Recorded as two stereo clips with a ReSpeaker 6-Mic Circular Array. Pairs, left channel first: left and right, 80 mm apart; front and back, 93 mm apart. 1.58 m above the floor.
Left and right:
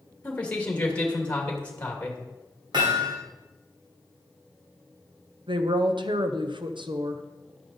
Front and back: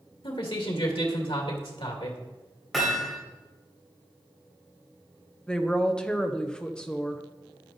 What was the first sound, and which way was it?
A man speaking, 15° left.